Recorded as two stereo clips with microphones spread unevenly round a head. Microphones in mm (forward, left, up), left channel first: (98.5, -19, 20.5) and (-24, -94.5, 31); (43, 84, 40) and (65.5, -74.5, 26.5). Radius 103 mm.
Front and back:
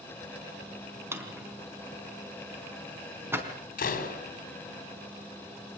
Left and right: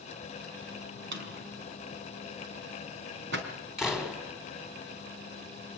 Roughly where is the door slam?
Ahead.